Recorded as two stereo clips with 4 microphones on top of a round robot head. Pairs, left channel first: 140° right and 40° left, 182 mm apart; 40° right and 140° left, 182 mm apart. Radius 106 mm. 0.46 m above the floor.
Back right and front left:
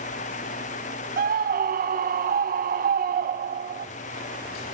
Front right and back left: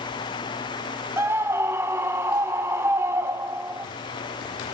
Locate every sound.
1.2 s a scream: 65° left, 1.1 m